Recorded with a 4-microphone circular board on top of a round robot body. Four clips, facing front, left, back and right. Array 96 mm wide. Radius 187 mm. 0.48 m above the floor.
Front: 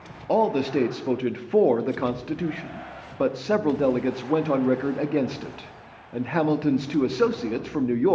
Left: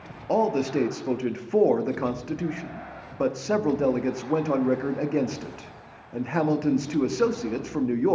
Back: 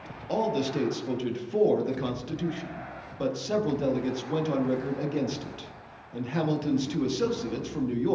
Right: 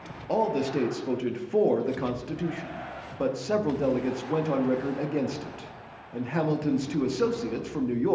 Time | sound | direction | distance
0.3 | a man speaking | 20° left | 1.0 m